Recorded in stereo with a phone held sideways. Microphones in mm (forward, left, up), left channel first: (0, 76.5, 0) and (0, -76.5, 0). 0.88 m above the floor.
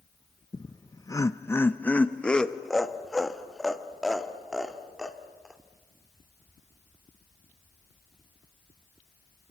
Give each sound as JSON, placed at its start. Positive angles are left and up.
{"t": 0.5, "sound": "laughter", "side_deg": 25, "distance_m": 0.7}